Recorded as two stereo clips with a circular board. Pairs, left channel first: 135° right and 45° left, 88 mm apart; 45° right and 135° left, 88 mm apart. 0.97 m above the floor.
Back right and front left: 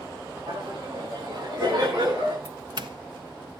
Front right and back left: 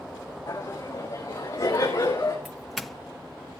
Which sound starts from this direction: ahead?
Laughter, at 0.5 s.